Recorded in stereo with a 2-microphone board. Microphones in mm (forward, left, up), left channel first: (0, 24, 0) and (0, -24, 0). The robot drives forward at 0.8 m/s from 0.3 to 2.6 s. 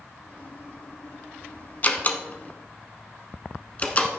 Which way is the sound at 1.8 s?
35° left (ahead or behind).